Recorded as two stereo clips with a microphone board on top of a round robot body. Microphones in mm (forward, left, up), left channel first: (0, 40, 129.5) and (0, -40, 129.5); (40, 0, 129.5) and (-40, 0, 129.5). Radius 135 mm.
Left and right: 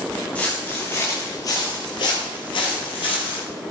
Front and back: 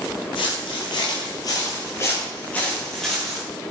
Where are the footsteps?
15° left, 1.8 m; by 3.4 s 90° left, 2 m.